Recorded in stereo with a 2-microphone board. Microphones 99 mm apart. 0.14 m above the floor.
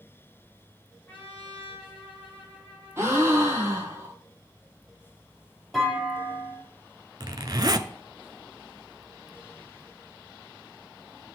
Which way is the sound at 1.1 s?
20° left (ahead or behind).